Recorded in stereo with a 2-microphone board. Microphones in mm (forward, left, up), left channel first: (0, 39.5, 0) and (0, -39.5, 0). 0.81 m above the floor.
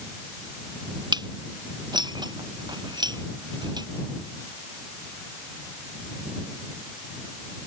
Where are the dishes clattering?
70° right (ahead or behind).